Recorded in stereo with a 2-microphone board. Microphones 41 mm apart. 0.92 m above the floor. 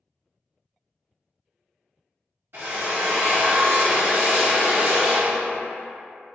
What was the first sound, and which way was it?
A drill, 65° right (ahead or behind).